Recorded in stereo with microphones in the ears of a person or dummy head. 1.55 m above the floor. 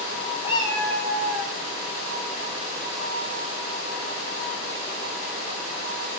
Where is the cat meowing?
35° left (ahead or behind), 1.8 m; by 1.5 s 15° right (ahead or behind), 2 m.